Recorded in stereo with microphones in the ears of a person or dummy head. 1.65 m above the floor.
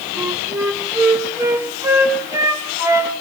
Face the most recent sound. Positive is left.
turn(degrees=-20)  # may be behind; listen again after turning